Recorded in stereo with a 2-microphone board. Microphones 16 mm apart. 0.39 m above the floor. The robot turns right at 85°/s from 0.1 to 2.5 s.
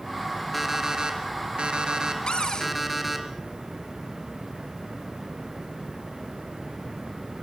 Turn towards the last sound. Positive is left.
turn(degrees=45)  # may be behind; listen again after turning